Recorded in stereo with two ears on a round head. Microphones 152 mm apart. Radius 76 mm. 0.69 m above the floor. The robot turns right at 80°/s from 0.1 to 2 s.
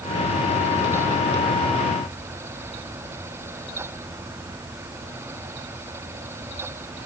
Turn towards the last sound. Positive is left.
No sound to turn to.